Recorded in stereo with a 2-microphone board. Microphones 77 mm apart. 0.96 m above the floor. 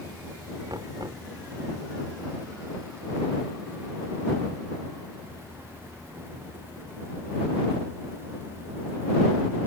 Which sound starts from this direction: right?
Knocking, at 0.7 s.